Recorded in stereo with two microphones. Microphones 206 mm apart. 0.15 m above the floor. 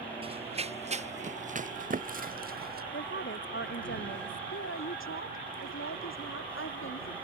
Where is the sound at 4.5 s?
80° left.